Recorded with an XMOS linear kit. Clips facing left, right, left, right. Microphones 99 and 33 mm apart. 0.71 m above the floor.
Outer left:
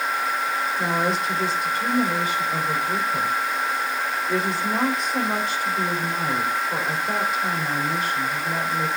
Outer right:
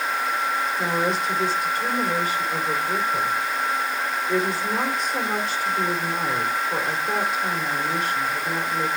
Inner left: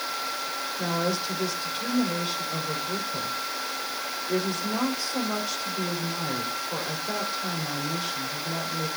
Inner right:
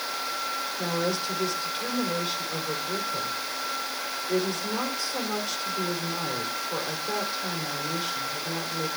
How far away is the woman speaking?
About 3 m.